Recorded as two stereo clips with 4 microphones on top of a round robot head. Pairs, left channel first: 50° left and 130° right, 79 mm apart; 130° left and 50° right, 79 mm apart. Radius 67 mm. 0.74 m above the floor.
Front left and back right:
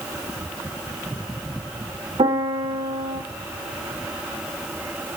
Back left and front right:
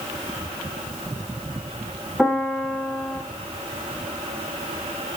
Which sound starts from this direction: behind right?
A piano, at 2.2 s.